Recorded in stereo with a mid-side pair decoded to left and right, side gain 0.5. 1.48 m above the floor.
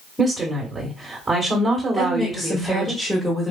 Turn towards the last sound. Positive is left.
turn(degrees=-5)